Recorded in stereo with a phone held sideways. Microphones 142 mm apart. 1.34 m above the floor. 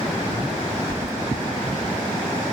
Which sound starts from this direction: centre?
Keys jangling, at 0.9 s.